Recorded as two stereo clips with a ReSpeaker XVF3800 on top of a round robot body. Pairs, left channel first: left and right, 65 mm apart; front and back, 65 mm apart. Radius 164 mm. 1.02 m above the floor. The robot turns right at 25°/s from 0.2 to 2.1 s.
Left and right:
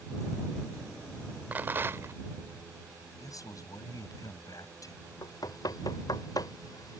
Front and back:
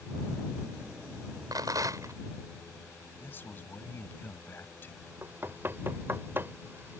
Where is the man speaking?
60° left.